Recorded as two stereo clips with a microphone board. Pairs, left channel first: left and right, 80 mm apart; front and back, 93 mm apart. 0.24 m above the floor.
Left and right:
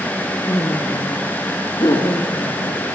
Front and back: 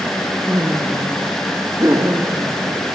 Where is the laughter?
120° left, 3.5 m.